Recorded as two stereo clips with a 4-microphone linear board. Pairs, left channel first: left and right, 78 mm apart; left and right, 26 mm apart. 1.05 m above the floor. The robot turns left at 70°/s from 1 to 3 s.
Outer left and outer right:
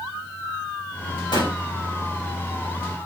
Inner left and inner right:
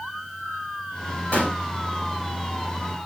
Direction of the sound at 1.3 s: 70° left (ahead or behind).